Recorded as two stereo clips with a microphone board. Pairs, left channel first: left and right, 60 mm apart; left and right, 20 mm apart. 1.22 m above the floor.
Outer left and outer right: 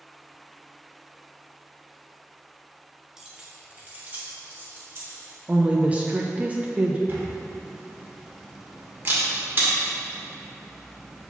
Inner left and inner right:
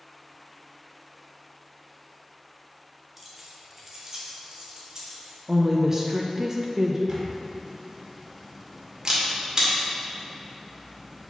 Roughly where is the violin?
No violin in this recording.